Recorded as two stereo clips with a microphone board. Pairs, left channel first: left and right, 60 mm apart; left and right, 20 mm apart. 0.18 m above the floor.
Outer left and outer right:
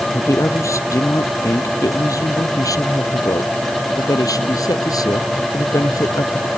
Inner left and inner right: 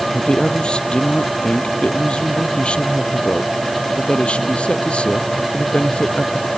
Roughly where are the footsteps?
I don't hear footsteps.